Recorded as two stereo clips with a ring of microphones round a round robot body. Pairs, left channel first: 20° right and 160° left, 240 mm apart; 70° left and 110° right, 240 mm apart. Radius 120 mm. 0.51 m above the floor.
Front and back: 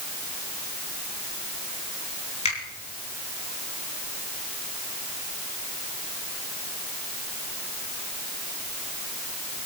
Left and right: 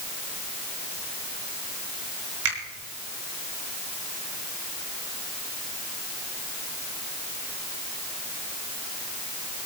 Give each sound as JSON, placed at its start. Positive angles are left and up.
{"t": 2.5, "sound": "a finger snap", "azimuth_deg": -85, "distance_m": 5.5}